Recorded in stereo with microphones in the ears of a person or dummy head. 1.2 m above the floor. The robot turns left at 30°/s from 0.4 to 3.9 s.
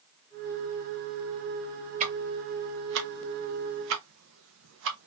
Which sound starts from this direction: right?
Ticking, at 2.0 s.